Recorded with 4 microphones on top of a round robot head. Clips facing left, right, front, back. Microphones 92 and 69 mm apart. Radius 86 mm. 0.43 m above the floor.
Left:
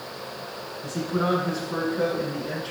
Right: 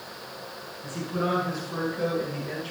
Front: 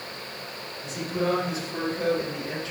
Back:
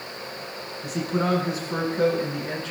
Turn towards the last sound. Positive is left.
turn(degrees=150)